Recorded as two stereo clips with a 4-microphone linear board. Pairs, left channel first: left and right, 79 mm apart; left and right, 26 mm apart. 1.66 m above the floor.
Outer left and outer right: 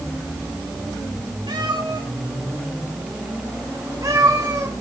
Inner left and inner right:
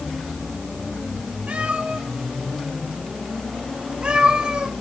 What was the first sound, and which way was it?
A cat meowing, 75° right (ahead or behind).